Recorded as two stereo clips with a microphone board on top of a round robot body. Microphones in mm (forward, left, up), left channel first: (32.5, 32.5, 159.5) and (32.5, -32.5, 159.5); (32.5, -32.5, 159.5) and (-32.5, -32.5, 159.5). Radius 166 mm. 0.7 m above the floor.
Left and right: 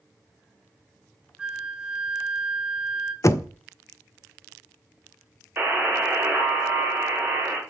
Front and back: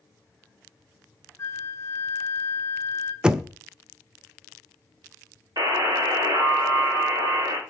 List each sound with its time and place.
1.4 s a flute: 25° right, 1.4 m
3.2 s knocking: 105° left, 0.6 m
5.6 s a buzzer: 155° right, 1.9 m